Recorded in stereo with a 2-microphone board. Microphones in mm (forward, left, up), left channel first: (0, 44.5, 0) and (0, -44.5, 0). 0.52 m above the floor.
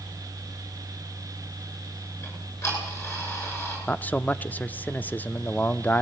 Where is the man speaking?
20° left (ahead or behind), 0.7 m.